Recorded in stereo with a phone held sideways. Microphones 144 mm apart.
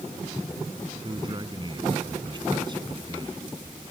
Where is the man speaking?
35° right (ahead or behind).